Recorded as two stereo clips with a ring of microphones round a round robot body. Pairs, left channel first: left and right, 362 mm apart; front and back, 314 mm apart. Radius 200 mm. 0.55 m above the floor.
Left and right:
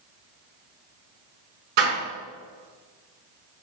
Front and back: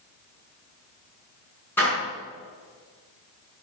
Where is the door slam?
85° right, 5.5 m.